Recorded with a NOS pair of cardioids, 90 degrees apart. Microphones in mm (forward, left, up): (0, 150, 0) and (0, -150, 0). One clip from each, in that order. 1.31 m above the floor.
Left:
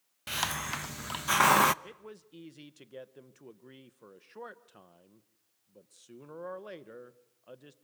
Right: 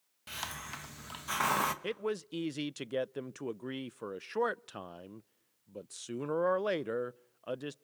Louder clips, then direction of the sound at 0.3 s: Left 8 dB; 40° left.